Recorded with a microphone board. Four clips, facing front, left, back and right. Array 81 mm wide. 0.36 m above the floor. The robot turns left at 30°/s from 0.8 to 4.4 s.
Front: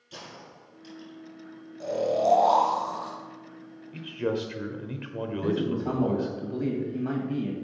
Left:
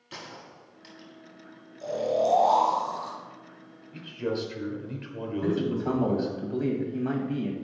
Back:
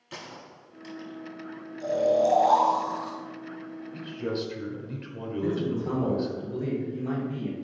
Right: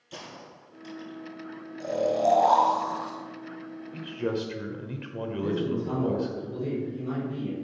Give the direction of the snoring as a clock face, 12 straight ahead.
1 o'clock.